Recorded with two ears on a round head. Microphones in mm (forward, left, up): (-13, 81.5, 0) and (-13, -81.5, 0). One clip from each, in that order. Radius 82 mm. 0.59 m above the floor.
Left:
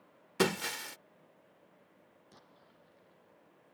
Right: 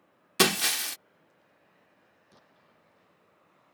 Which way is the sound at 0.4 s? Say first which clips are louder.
Right 7 dB; 70° right (ahead or behind).